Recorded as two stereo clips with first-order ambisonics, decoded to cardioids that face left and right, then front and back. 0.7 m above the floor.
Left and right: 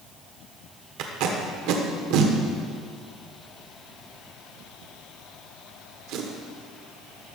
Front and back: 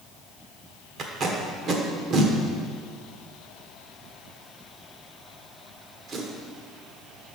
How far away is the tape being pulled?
About 1.1 m.